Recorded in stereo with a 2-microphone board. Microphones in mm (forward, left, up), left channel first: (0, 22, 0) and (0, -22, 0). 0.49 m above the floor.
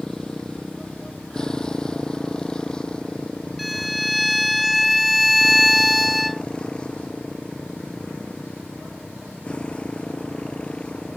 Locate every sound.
0.0 s a motorcycle: 15° left (ahead or behind); by 11.2 s 25° left (ahead or behind)
3.6 s a violin: centre (ahead or behind)